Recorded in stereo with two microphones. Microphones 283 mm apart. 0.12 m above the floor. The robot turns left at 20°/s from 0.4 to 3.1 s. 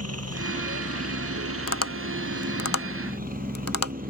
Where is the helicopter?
90° right; by 4.1 s 145° right.